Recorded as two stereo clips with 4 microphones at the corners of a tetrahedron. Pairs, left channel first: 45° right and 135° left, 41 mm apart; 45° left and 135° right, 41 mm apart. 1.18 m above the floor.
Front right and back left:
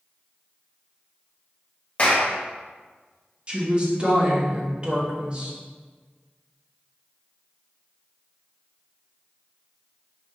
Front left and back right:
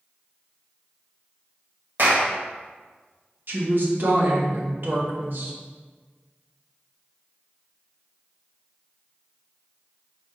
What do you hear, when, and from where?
2.0 s a clap: 105° right, 1.1 m
3.5 s a woman speaking: 165° right, 1.1 m